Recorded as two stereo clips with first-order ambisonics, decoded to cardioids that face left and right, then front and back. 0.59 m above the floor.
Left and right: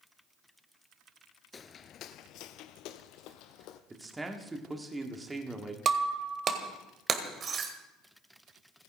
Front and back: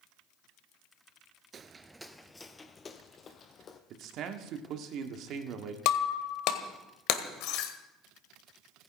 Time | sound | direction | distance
1.5 | footsteps | 145° left | 0.6 m
3.9 | a man speaking | 165° right | 1.5 m
5.8 | breaking glass | 25° right | 1.6 m